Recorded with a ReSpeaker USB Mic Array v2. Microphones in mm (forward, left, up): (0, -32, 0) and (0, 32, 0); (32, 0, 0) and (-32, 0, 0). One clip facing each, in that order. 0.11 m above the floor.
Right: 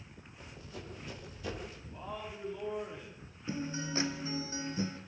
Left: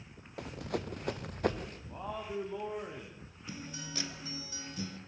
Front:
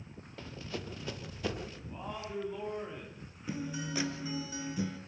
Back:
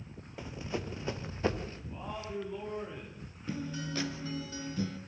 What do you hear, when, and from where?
0.4 s running footsteps: 105° left, 1.8 m; by 1.8 s 125° left, 2.5 m
1.9 s a man speaking: 85° left, 8 m
3.5 s a guitar: 70° right, 1.8 m